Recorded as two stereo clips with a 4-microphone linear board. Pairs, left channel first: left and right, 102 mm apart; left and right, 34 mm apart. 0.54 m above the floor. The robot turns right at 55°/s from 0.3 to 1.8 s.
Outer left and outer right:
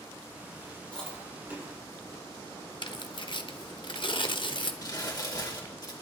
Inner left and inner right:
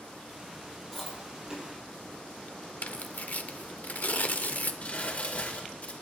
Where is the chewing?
10° left (ahead or behind), 5 m; by 1.7 s 30° right (ahead or behind), 5 m.